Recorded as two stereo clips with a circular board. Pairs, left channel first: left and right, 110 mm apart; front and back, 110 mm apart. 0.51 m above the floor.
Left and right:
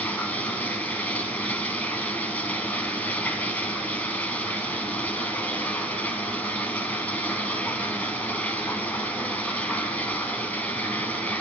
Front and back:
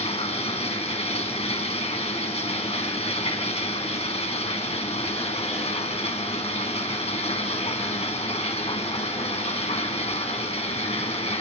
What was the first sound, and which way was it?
Running water, 15° left.